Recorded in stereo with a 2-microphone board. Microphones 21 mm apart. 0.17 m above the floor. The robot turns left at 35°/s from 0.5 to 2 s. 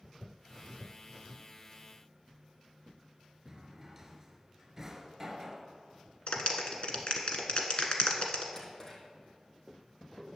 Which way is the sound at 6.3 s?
50° left (ahead or behind).